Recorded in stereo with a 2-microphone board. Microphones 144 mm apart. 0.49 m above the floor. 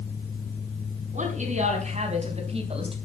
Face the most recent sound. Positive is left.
turn(degrees=-40)  # may be behind; listen again after turning